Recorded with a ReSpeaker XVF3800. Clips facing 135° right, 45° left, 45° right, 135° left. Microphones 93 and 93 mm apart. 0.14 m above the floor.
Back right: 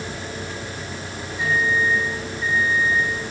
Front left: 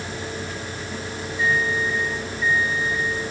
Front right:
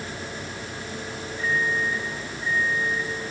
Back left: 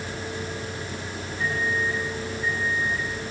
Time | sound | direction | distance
1.4 | a microwave | 155° left | 6 m